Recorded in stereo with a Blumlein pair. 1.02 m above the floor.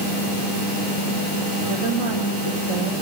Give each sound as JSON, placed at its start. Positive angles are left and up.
{"t": 1.6, "sound": "a woman speaking", "azimuth_deg": -60, "distance_m": 3.0}